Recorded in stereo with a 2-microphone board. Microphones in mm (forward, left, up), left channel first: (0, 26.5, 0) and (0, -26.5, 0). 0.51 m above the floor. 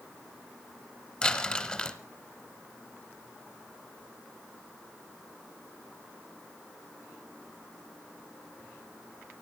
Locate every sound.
1.2 s crumpling: 20° left (ahead or behind), 1.6 m